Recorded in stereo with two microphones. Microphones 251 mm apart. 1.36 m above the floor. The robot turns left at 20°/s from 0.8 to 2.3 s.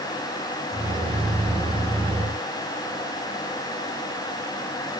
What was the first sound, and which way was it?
Only background noise.